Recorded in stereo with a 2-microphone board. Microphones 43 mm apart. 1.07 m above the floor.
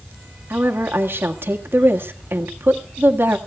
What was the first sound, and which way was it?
A woman speaking, 60° right (ahead or behind).